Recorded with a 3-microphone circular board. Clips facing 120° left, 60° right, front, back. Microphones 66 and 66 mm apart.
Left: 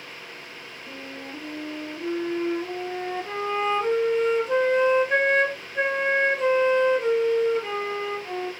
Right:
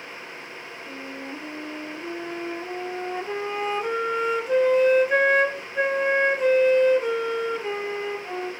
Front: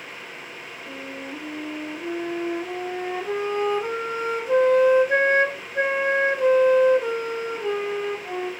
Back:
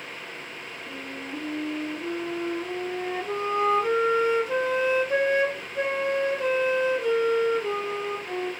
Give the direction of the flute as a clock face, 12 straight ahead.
11 o'clock.